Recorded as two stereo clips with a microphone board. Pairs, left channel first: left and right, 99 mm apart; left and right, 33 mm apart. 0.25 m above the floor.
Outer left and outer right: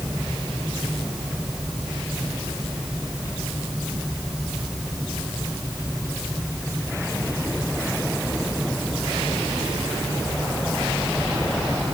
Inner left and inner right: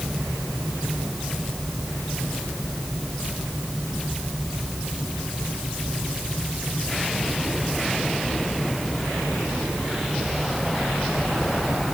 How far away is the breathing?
No breathing in this recording.